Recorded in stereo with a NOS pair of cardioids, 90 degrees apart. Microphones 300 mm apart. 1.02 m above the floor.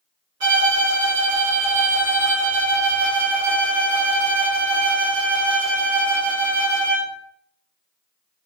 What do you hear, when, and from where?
0.4 s a violin: 65° right, 1.5 m